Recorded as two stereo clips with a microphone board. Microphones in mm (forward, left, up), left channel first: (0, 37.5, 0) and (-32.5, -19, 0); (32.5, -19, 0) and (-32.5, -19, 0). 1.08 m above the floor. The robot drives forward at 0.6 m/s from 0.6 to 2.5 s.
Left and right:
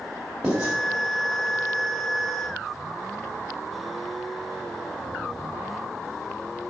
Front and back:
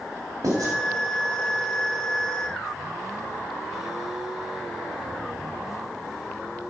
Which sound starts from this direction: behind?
Writing, at 0.4 s.